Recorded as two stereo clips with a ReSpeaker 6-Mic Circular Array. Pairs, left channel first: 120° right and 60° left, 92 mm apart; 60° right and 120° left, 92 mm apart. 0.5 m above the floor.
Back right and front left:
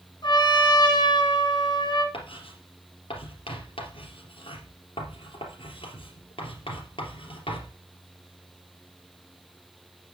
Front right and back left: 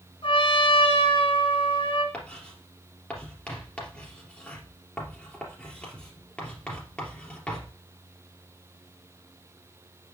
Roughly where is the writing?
Behind right.